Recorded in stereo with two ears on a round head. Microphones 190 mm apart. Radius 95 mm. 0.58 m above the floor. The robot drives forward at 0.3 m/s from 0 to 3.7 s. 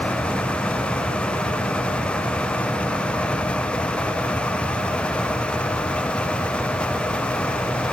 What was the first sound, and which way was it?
Only background noise.